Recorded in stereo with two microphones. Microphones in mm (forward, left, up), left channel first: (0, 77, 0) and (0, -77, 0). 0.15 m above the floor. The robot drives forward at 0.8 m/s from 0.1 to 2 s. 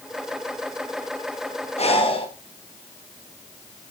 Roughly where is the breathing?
Left.